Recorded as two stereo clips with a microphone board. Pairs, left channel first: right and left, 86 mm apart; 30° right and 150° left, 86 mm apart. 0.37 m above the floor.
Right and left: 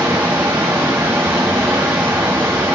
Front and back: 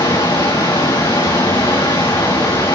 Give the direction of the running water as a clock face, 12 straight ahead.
11 o'clock.